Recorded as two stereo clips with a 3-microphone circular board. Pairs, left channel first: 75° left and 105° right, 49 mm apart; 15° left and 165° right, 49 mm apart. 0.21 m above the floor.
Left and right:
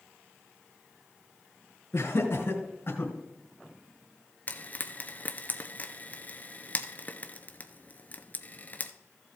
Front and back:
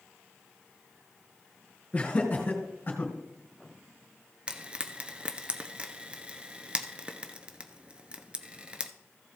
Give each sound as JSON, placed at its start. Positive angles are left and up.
{"t": 1.9, "sound": "laughter", "azimuth_deg": 75, "distance_m": 3.5}
{"t": 4.5, "sound": "frying", "azimuth_deg": 130, "distance_m": 0.8}